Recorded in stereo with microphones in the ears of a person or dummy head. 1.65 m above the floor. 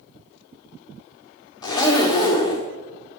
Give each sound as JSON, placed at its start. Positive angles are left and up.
{"t": 1.6, "sound": "a zipper", "side_deg": 15, "distance_m": 1.2}